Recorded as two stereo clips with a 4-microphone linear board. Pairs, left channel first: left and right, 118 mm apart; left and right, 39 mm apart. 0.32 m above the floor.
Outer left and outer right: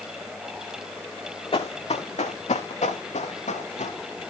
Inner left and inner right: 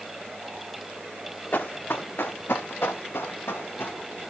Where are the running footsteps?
50° left (ahead or behind), 1.4 m; by 4.0 s 80° left, 2.5 m.